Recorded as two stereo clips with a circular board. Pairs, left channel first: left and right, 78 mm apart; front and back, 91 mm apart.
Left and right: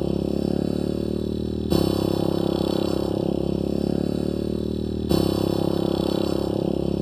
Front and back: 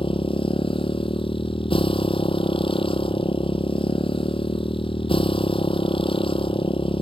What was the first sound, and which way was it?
A motorcycle, 5° left.